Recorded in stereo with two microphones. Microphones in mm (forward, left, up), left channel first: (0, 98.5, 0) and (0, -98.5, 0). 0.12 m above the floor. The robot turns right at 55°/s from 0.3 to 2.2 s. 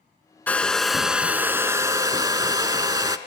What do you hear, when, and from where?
0.5 s a hair dryer: 10° left (ahead or behind), 0.6 m; by 3.2 s 20° right (ahead or behind), 0.6 m